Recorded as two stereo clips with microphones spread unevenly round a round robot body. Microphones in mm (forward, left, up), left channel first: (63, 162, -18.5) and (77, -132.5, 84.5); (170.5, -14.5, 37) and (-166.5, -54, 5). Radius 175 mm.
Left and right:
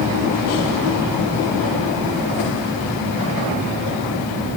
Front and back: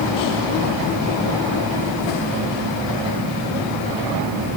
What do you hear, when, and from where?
Only background noise.